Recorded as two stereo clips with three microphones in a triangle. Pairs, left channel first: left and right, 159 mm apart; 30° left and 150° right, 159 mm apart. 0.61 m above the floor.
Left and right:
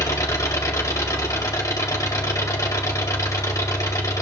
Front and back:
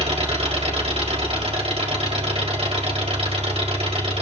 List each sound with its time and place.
0.0 s an engine running: 160° left, 2 m